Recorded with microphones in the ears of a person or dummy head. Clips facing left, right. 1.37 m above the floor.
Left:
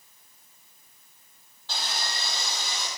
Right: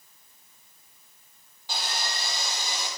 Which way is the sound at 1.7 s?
15° right (ahead or behind).